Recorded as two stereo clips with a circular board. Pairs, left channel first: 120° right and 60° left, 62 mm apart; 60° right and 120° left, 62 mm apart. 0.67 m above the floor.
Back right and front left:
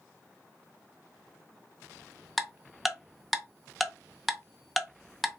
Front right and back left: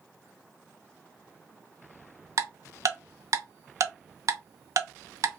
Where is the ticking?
150° left, 0.5 m.